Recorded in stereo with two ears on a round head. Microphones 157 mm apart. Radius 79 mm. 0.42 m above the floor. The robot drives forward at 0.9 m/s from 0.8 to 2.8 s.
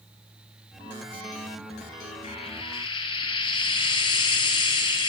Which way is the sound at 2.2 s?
35° left (ahead or behind).